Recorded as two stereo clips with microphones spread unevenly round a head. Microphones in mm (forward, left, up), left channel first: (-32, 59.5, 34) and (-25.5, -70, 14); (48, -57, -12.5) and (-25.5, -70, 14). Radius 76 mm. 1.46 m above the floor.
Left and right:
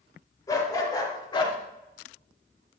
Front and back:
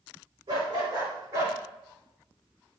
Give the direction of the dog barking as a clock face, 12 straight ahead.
7 o'clock.